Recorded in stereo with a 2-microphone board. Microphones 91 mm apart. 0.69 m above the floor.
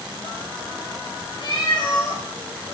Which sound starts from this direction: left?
A cat meowing, at 1.4 s.